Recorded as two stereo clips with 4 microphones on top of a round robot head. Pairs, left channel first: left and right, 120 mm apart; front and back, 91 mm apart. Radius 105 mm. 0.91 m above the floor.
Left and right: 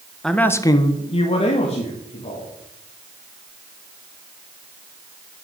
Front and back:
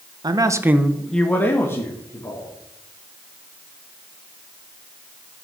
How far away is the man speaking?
About 1.2 m.